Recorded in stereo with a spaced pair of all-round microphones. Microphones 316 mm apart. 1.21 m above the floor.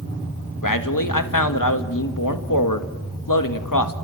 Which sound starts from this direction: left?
A man speaking, at 0.6 s.